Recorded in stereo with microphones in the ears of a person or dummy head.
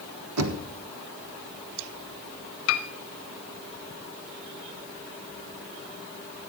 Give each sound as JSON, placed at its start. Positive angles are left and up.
{"t": 0.4, "sound": "knocking", "side_deg": -75, "distance_m": 1.2}
{"t": 2.7, "sound": "a piano", "side_deg": 75, "distance_m": 0.8}